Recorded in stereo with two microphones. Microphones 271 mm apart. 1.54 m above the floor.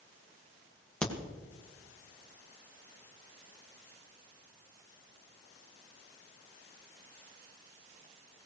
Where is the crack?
5° left (ahead or behind), 2 m.